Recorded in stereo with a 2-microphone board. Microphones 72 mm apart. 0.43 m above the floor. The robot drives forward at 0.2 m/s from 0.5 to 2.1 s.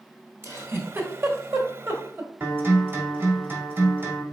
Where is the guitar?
30° right (ahead or behind), 1.7 m.